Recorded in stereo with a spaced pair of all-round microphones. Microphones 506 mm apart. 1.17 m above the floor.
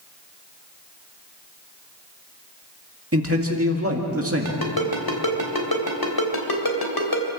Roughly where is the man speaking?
Right.